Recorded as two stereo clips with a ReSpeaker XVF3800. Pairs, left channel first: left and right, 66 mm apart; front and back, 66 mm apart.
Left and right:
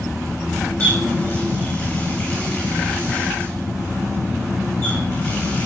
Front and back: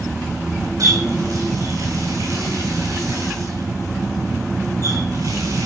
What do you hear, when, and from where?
0.8 s a running tap: 145° left, 7.5 m